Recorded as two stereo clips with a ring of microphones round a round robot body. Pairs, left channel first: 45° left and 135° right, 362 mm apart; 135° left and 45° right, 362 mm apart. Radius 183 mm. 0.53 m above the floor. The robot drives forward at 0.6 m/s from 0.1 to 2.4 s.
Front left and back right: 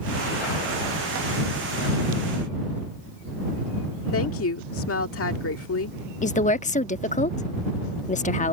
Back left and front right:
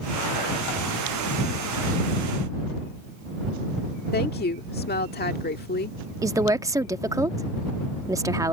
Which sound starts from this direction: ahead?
A woman speaking, at 6.2 s.